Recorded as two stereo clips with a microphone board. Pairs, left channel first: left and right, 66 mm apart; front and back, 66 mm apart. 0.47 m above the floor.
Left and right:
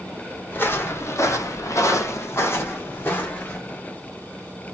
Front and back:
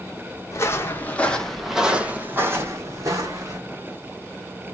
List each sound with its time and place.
0.5 s footsteps: 35° left, 0.9 m; by 3.6 s 150° left, 1.3 m